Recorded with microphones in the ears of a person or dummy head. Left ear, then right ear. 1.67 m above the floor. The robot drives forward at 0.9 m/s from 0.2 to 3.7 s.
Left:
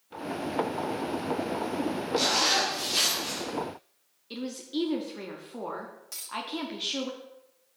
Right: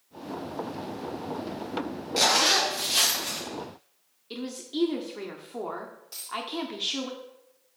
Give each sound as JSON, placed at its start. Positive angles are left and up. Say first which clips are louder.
{"t": 2.2, "sound": "a zipper", "louder": "right 3 dB", "side_deg": -20, "distance_m": 0.6}
{"t": 4.3, "sound": "a woman speaking", "louder": "even", "side_deg": 0, "distance_m": 0.6}
{"t": 6.1, "sound": "a dropped coin", "louder": "right 2 dB", "side_deg": 55, "distance_m": 1.5}